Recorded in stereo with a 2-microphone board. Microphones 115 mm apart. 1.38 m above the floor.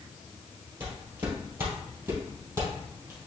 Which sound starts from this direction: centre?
Footsteps, at 0.8 s.